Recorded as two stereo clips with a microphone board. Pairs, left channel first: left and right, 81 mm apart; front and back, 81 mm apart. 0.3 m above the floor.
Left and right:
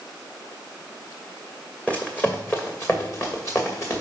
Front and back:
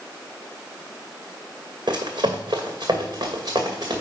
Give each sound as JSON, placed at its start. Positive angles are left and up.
{"t": 1.9, "sound": "running footsteps", "azimuth_deg": 160, "distance_m": 1.1}